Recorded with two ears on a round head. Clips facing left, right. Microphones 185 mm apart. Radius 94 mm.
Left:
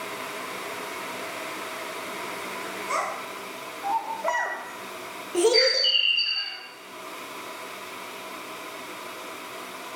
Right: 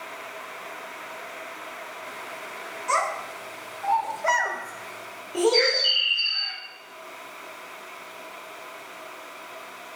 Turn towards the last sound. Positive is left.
turn(degrees=15)  # may be behind; listen again after turning